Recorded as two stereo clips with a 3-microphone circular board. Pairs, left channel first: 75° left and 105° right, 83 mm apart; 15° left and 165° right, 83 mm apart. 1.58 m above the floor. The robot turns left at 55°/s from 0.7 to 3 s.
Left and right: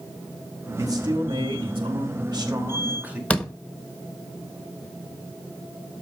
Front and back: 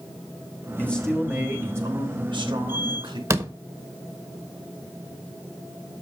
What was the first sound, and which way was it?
A man speaking, 55° right.